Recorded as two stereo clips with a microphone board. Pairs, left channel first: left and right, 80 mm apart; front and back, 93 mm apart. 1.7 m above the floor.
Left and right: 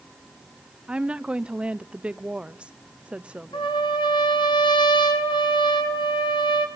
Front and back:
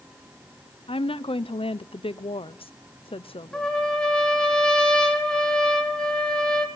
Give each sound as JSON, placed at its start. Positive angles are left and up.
{"t": 0.9, "sound": "a woman speaking", "azimuth_deg": -10, "distance_m": 0.9}
{"t": 3.5, "sound": "a trumpet", "azimuth_deg": 80, "distance_m": 3.5}